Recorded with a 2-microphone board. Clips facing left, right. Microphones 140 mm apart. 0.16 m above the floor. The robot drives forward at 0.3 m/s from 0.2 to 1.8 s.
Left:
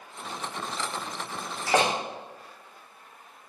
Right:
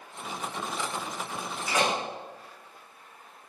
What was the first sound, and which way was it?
A door slam, 80° left.